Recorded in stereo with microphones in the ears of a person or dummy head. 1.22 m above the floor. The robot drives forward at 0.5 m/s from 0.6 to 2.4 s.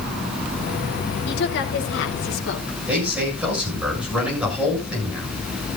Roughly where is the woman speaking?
Left.